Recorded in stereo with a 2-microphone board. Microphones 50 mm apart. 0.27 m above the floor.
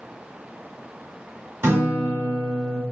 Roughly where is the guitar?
Right.